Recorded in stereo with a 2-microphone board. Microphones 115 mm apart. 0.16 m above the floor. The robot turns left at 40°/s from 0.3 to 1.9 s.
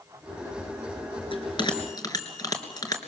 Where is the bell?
50° left (ahead or behind), 3 m; by 3.0 s 35° left (ahead or behind), 3 m.